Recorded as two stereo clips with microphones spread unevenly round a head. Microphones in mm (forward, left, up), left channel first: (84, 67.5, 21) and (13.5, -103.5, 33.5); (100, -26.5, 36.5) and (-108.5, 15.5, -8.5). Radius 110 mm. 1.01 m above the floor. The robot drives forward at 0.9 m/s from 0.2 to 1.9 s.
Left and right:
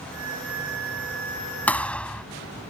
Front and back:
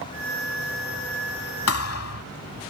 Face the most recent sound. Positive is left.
turn(degrees=-15)